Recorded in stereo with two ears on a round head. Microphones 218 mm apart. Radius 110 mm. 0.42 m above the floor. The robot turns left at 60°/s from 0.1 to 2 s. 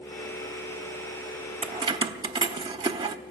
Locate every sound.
1.6 s keys jangling: 25° right (ahead or behind), 0.7 m; by 3.2 s 20° right (ahead or behind), 0.7 m